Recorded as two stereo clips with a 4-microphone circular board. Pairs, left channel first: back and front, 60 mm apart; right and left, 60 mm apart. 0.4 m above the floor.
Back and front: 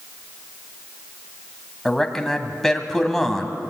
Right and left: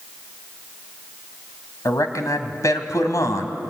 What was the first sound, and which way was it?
A man speaking, 95° right.